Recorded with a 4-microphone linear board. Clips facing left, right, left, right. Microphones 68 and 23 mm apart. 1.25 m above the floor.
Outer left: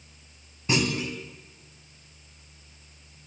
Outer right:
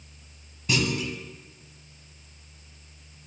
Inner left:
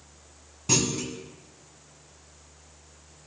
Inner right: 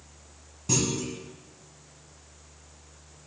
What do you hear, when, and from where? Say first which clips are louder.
0.7 s a clunk: outer left 1 dB, inner left 2 dB; 30° left (ahead or behind), 1.2 m